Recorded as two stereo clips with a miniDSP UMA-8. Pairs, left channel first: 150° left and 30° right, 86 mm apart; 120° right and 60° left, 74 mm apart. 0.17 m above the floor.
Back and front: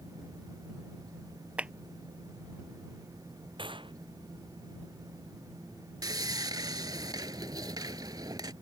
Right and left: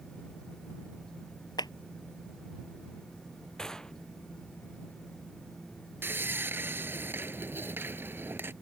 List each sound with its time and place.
1.6 s a clap: 105° right
3.6 s a gunshot: 35° right
6.0 s sawing: 5° left